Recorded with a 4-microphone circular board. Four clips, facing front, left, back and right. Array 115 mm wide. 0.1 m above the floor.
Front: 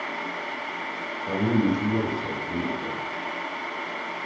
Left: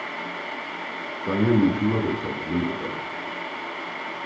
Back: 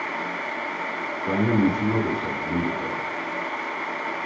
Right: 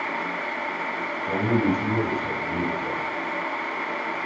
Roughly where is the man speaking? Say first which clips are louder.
Left 3 dB, back 2 dB; behind left.